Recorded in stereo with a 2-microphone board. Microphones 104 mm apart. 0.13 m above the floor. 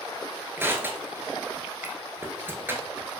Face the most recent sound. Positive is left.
turn(degrees=-20)  # may be behind; listen again after turning